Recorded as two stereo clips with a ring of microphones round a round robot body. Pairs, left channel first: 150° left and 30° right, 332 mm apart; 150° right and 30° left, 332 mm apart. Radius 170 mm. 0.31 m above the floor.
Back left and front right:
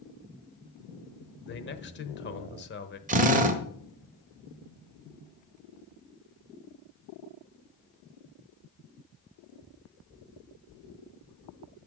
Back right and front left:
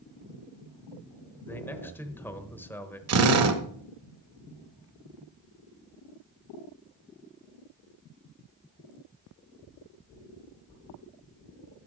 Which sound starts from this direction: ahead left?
A drill, at 3.1 s.